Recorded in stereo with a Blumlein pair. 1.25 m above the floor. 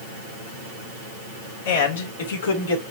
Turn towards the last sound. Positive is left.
turn(degrees=70)